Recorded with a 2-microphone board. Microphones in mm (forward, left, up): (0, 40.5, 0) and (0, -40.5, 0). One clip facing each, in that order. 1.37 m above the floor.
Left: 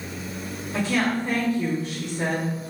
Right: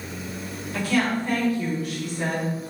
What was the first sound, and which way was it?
A woman speaking, 25° left (ahead or behind).